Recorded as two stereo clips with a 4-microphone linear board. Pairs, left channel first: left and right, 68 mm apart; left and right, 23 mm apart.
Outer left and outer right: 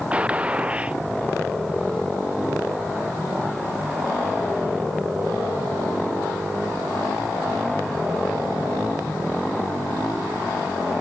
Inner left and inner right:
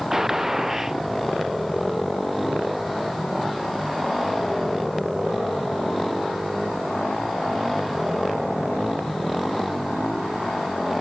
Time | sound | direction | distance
0.1 | a gunshot | 20° right (ahead or behind) | ?